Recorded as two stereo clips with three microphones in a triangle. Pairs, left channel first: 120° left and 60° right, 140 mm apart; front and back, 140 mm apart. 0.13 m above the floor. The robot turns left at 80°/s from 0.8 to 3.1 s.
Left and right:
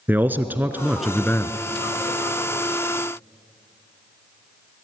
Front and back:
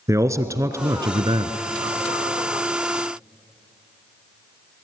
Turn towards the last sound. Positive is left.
turn(degrees=50)